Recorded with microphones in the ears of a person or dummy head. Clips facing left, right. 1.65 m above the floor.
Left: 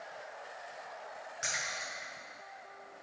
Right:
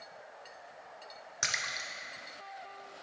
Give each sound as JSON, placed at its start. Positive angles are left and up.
{"t": 1.4, "sound": "a splash", "side_deg": -65, "distance_m": 0.6}